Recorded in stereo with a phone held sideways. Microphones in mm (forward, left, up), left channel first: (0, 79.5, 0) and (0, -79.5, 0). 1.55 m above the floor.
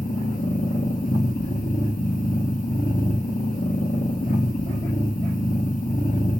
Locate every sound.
0.0 s a machine running: 60° left (ahead or behind), 3 m